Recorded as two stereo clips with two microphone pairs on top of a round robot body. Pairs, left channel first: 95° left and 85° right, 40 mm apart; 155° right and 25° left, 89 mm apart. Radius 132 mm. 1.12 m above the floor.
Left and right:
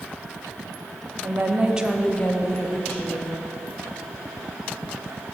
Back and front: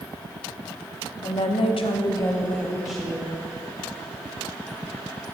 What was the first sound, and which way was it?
A woman speaking, 130° right.